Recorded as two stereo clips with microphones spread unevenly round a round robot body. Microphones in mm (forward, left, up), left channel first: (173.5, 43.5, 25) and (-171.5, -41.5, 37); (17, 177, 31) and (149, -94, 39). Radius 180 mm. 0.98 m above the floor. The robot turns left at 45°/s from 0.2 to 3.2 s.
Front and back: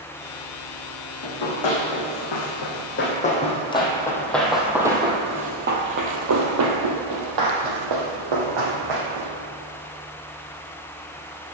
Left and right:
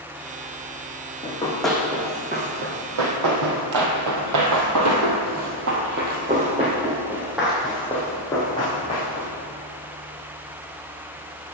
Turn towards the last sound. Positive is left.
turn(degrees=-170)